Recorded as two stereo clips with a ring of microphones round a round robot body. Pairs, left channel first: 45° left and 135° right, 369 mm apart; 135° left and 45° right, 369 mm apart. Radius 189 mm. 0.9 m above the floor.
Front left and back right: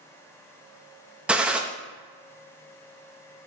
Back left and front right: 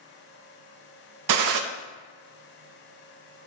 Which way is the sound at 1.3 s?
50° right.